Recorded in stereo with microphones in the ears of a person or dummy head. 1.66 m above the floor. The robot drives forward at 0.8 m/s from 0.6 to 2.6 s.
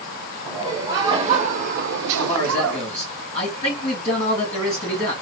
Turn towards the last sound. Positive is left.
turn(degrees=40)  # may be behind; listen again after turning